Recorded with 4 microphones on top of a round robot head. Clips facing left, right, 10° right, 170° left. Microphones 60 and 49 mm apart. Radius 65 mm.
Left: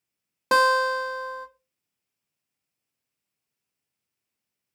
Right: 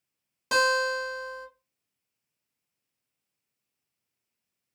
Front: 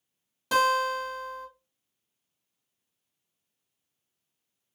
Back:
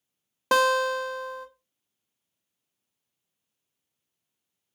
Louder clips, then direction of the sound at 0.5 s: Left 4 dB, back 2 dB; 135° left.